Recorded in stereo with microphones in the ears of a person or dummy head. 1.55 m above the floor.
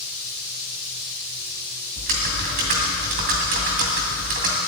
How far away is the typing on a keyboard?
About 2 m.